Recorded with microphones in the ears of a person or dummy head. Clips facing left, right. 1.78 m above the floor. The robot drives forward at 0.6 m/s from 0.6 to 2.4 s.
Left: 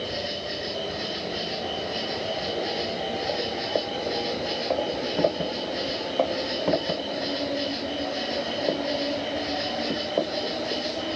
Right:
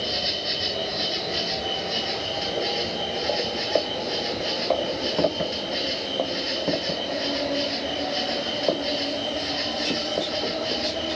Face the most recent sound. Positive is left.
turn(degrees=-50)  # may be behind; listen again after turning